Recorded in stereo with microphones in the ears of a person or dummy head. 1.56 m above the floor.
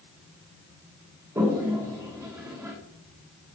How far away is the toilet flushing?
About 1.4 m.